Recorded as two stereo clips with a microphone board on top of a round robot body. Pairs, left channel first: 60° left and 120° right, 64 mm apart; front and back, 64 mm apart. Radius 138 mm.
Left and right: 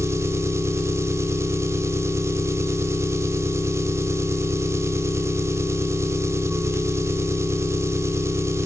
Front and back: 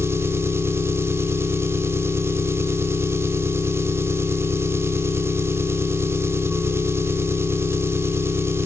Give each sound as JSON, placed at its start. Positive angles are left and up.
{"t": 0.0, "sound": "an engine running", "azimuth_deg": -145, "distance_m": 1.1}